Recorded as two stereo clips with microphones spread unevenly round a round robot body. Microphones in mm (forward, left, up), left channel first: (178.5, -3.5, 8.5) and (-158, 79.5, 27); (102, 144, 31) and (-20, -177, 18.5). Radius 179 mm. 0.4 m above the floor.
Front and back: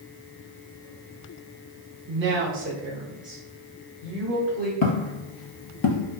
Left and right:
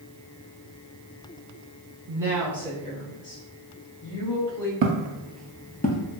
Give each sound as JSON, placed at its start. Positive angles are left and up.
{"t": 2.1, "sound": "a woman speaking", "azimuth_deg": -175, "distance_m": 1.0}
{"t": 4.8, "sound": "footsteps", "azimuth_deg": -60, "distance_m": 0.6}